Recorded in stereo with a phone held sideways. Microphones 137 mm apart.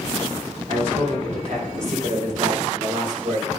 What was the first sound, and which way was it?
A man speaking, 55° right (ahead or behind).